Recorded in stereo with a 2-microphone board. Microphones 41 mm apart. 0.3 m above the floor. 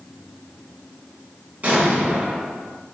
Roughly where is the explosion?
Right.